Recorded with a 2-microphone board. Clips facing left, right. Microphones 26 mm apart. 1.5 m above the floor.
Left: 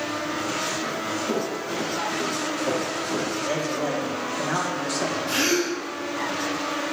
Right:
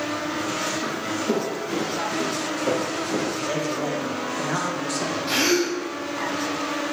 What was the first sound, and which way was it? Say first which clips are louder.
Footsteps: right 1 dB; 45° right (ahead or behind).